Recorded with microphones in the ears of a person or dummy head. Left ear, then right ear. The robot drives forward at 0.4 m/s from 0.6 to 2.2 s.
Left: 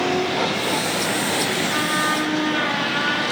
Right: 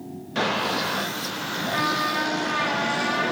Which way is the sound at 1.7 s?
20° left (ahead or behind).